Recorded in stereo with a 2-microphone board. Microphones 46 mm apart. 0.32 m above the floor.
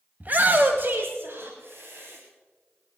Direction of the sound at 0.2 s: 40° right (ahead or behind).